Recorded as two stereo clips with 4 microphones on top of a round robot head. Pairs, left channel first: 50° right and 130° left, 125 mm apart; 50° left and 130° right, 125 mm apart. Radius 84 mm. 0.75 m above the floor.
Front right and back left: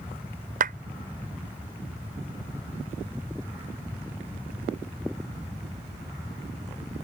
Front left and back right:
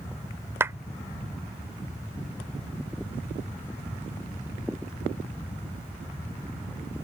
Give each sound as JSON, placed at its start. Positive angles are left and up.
{"t": 0.6, "sound": "a clap", "azimuth_deg": 155}